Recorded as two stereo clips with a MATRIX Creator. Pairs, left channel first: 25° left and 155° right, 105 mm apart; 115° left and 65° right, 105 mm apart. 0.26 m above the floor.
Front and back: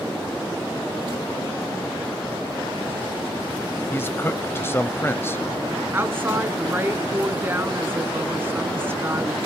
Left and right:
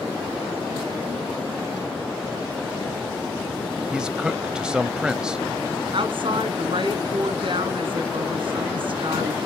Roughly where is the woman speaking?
Right.